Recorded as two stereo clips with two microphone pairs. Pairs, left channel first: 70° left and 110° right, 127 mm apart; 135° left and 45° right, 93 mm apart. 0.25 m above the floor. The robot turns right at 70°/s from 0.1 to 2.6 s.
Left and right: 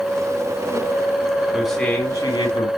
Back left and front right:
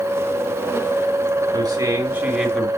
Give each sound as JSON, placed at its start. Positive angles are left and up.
{"t": 1.5, "sound": "a man speaking", "azimuth_deg": -25, "distance_m": 2.5}